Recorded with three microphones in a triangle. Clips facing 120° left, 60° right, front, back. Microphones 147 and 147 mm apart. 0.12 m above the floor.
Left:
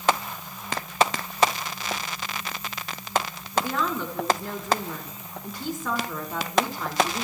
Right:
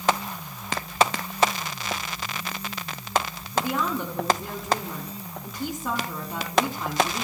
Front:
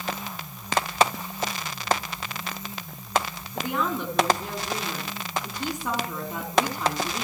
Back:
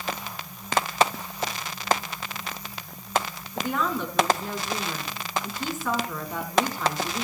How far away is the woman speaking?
About 1.6 m.